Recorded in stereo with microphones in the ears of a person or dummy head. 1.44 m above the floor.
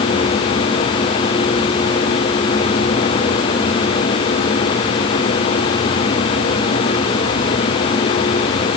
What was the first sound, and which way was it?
Only background noise.